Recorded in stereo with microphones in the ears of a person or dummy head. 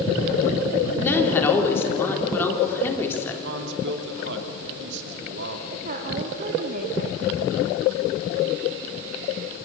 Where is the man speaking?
65° right (ahead or behind), 3 m.